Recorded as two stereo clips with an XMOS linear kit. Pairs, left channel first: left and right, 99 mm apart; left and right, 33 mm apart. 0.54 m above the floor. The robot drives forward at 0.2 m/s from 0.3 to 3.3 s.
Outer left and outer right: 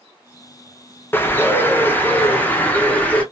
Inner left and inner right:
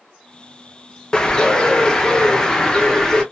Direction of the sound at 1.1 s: 20° left (ahead or behind).